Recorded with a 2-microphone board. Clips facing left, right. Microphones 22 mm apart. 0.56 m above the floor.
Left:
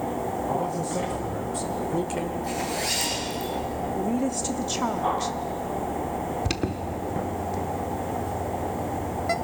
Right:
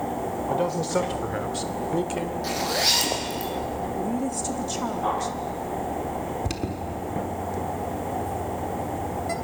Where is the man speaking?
70° right (ahead or behind), 1.7 m; by 2.3 s centre (ahead or behind), 1.6 m.